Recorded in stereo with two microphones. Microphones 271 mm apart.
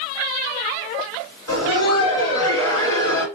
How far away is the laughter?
About 2 m.